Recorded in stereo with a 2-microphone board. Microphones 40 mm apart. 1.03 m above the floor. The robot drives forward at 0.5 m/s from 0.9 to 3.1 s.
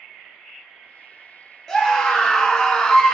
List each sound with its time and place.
1.7 s a scream: 10° left (ahead or behind), 1.2 m; by 3.1 s 15° left (ahead or behind), 0.8 m